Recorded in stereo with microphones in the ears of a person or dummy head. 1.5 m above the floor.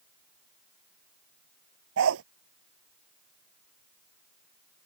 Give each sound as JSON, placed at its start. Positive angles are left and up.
{"t": 2.0, "sound": "a dog barking", "side_deg": -80}